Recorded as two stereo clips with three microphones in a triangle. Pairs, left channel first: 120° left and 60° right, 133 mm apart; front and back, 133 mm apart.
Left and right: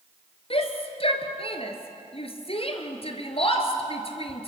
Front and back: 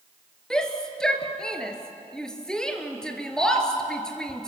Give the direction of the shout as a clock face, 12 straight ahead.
9 o'clock.